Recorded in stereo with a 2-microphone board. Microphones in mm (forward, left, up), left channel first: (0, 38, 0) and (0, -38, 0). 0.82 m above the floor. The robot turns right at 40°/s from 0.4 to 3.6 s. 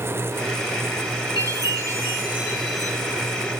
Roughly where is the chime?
Ahead right.